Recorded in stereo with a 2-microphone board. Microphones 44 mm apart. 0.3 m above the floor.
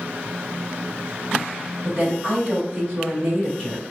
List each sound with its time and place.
1.8 s a woman speaking: 25° right (ahead or behind), 1.5 m